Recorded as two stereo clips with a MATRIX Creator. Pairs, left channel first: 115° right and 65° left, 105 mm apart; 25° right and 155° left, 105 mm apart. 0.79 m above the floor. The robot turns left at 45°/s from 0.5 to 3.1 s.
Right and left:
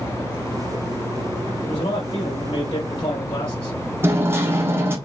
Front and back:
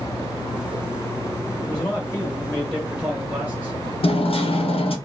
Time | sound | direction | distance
1.6 | a man speaking | 65° right | 2.5 m
4.0 | hammering | straight ahead | 1.2 m